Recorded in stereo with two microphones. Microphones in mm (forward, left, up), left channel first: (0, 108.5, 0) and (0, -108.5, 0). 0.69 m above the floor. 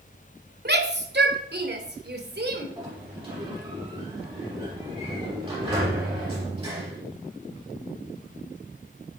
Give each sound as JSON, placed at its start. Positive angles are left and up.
{"t": 0.7, "sound": "a shout", "side_deg": -50, "distance_m": 2.0}
{"t": 2.8, "sound": "a sliding door", "side_deg": -25, "distance_m": 7.0}